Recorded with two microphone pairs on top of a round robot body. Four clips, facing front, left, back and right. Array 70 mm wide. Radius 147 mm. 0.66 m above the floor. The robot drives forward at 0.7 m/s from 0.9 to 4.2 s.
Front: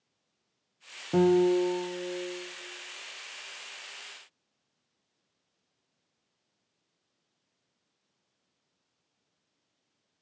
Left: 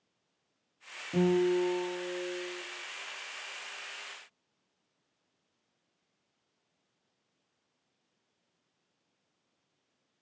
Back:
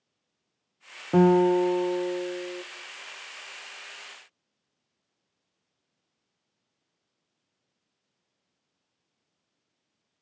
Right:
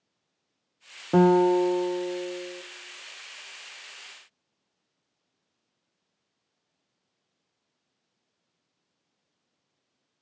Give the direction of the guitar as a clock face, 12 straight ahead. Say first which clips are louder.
Right 8 dB, back 3 dB; 4 o'clock.